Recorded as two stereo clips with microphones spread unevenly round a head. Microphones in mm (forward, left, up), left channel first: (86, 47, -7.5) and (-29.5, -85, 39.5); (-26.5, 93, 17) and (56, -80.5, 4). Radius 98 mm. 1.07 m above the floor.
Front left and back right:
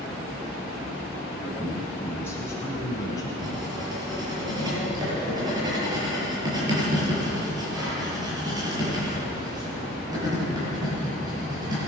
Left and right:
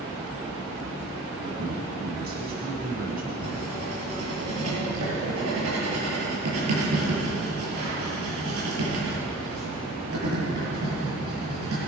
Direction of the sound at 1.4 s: 35° right.